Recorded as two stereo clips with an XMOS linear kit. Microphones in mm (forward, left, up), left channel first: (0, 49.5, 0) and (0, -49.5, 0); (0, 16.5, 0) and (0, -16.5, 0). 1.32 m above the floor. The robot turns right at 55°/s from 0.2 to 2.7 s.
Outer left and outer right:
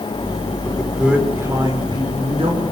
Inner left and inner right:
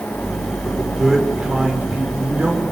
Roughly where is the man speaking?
Behind.